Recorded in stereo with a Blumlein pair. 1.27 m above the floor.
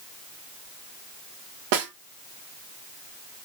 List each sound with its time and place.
1.7 s a snare drum: 50° right, 1.5 m